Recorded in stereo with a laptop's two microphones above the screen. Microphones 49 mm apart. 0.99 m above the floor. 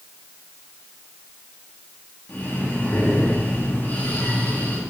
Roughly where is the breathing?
Left.